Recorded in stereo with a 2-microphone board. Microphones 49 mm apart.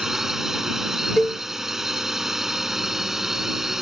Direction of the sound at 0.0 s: 10° right (ahead or behind).